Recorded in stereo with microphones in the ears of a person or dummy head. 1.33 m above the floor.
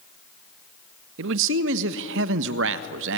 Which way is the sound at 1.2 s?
70° right (ahead or behind).